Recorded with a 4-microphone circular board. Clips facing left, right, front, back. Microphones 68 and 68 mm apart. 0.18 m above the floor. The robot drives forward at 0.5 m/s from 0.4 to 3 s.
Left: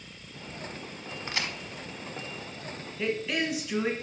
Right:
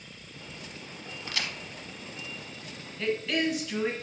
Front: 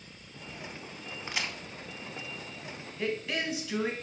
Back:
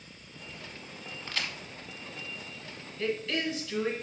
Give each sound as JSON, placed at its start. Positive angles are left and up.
{"t": 1.3, "sound": "a crack", "azimuth_deg": 55, "distance_m": 0.6}
{"t": 3.0, "sound": "a woman speaking", "azimuth_deg": 20, "distance_m": 1.1}